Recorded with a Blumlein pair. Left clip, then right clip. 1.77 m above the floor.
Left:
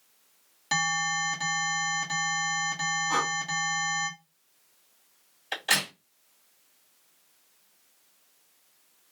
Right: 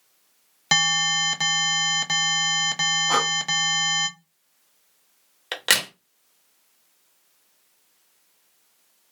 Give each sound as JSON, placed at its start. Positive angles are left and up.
{"t": 0.7, "sound": "an alarm", "azimuth_deg": -30, "distance_m": 0.6}
{"t": 3.1, "sound": "breathing", "azimuth_deg": -35, "distance_m": 0.7}
{"t": 5.5, "sound": "a crack", "azimuth_deg": -40, "distance_m": 1.1}